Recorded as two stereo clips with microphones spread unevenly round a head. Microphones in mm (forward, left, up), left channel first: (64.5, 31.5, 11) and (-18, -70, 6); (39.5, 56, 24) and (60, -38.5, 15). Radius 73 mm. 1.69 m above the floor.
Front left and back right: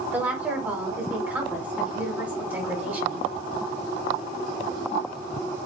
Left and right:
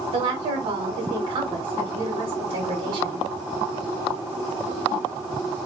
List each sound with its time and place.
0.1 s a woman speaking: 55° right, 1.2 m